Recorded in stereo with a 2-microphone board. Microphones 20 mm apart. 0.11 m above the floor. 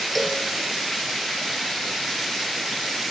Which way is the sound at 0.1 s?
10° left (ahead or behind).